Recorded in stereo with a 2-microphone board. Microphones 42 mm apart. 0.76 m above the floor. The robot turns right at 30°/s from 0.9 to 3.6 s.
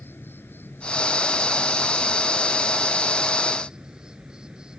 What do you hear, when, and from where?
0.0 s an insect: 120° left; by 4.8 s 160° right